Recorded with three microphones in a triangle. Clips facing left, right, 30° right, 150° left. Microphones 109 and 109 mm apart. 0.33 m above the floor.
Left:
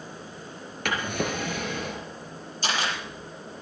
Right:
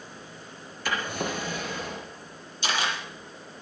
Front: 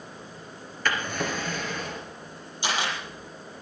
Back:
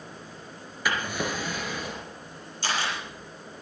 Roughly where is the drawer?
Left.